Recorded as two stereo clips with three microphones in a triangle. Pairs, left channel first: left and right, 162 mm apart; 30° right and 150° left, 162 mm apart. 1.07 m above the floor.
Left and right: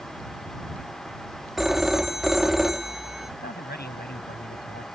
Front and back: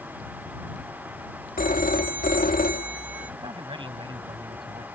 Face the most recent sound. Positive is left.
turn(degrees=90)